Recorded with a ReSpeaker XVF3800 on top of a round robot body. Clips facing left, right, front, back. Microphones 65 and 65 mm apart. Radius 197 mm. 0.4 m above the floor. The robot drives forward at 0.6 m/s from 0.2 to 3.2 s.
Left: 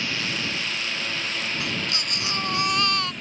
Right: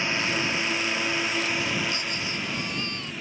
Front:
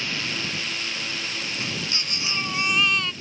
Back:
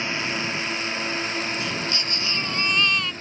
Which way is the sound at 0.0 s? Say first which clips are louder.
Right 2 dB, back 3 dB; 140° right.